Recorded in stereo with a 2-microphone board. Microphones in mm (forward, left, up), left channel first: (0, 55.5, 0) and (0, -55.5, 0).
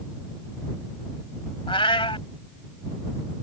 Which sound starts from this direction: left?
A cat meowing, at 1.7 s.